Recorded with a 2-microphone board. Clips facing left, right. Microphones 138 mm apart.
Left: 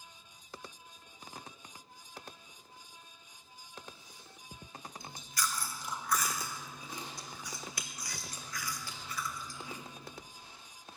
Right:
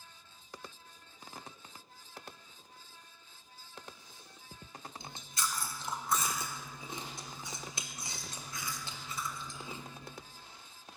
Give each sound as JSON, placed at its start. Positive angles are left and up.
{"t": 5.0, "sound": "chewing", "side_deg": -25, "distance_m": 0.5}